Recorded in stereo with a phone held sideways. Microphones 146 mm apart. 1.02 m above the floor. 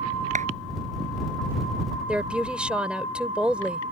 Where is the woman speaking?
5° right (ahead or behind).